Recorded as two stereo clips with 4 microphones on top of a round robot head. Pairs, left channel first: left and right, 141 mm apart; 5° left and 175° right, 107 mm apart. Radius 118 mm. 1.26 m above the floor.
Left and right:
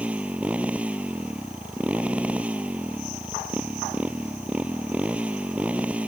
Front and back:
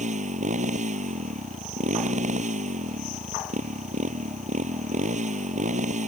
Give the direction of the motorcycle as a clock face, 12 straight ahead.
6 o'clock.